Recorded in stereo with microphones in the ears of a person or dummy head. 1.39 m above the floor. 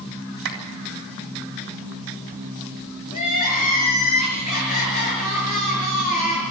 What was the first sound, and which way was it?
A clap, 60° right (ahead or behind).